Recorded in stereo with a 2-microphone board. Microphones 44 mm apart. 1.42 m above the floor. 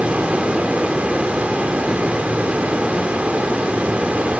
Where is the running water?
35° right (ahead or behind), 4.5 m.